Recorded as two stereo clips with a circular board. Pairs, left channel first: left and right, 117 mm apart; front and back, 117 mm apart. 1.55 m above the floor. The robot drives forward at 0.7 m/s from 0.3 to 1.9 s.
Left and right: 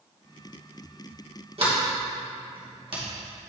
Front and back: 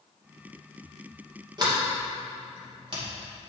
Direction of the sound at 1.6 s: 125° right.